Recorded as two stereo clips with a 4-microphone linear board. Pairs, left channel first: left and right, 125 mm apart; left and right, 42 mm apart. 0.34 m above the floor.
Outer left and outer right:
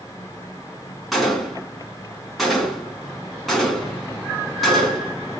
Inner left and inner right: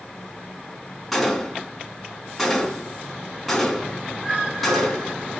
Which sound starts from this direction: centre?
A gunshot, at 1.1 s.